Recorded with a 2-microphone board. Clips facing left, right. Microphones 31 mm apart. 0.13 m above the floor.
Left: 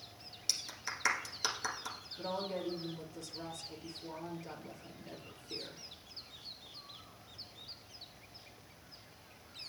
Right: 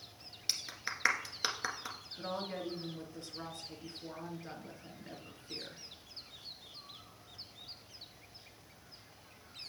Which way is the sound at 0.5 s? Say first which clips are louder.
Right 1 dB; 25° right (ahead or behind).